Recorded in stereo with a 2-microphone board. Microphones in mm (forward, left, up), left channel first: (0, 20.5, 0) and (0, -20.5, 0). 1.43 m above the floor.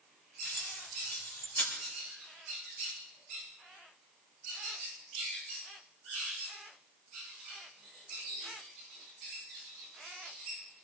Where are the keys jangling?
80° left, 4 m.